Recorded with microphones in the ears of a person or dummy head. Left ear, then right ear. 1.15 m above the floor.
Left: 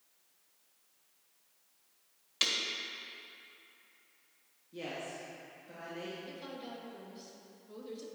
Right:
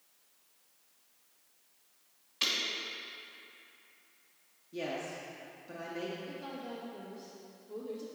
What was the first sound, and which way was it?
Breaking glass, 40° left (ahead or behind).